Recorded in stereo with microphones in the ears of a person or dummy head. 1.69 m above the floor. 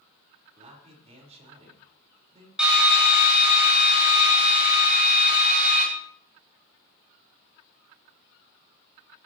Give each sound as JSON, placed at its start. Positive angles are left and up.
{"t": 0.6, "sound": "a man speaking", "side_deg": -35, "distance_m": 4.5}
{"t": 2.6, "sound": "a drill", "side_deg": -5, "distance_m": 6.5}